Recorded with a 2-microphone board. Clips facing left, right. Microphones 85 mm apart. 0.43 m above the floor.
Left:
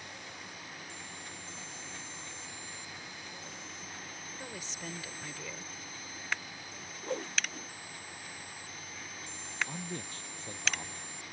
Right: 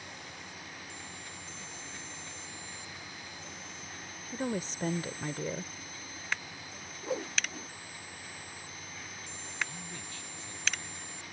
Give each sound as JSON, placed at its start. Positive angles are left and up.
{"t": 4.3, "sound": "a woman speaking", "side_deg": -45}
{"t": 7.0, "sound": "a whoosh", "side_deg": -5}
{"t": 9.7, "sound": "a man speaking", "side_deg": 40}